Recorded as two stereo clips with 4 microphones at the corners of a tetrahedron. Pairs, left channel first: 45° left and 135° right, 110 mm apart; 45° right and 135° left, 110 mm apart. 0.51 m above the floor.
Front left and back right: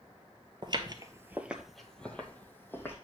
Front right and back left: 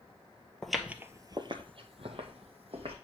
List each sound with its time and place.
0.6 s footsteps: 130° right, 0.6 m; by 3.0 s 115° left, 1.4 m